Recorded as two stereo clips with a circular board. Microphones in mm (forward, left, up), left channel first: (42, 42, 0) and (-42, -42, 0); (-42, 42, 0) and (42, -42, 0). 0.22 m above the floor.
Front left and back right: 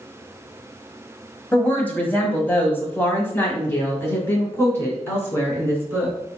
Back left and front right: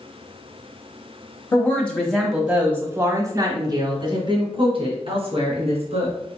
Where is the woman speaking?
105° left, 1.2 m; by 6.2 s 25° right, 2.5 m.